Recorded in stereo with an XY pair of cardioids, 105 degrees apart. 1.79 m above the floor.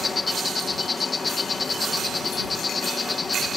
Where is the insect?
30° left.